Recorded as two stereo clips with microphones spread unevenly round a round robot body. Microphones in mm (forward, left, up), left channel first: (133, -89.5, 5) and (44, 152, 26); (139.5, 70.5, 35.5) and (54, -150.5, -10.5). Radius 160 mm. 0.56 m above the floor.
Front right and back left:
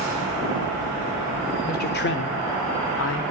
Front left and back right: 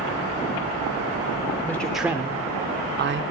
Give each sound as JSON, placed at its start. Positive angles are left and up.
{"t": 1.6, "sound": "a man speaking", "azimuth_deg": -20, "distance_m": 1.4}